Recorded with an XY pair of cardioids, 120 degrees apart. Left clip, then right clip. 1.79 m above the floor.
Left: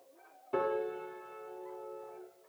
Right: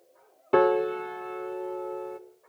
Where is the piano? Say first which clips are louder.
Right 11 dB; 70° right, 1.1 m.